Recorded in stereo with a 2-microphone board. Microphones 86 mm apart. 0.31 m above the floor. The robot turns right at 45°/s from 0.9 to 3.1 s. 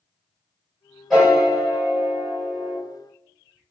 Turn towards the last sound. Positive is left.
turn(degrees=-90)